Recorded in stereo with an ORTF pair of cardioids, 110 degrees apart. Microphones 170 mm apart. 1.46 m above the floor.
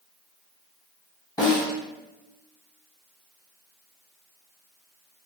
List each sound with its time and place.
1.4 s a snare drum: 20° left, 1.0 m